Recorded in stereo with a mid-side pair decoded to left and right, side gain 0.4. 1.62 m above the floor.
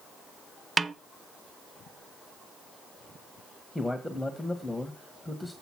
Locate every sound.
0.8 s a snare drum: 35° right, 0.7 m
3.8 s a man speaking: straight ahead, 1.7 m